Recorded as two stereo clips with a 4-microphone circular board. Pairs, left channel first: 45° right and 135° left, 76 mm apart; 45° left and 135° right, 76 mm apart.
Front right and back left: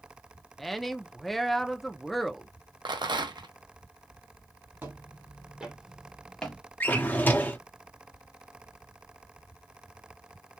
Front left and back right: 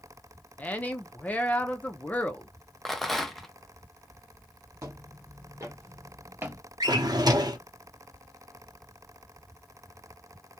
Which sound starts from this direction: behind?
Footsteps, at 4.8 s.